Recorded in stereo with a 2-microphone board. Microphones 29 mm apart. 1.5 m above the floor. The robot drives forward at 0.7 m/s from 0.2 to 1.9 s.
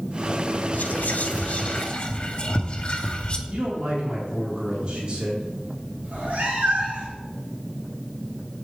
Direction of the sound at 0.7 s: 75° left (ahead or behind).